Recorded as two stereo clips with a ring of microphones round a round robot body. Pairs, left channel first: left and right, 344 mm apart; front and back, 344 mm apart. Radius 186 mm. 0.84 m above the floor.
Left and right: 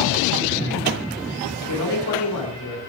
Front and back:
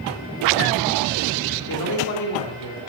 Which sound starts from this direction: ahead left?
A man speaking, at 1.7 s.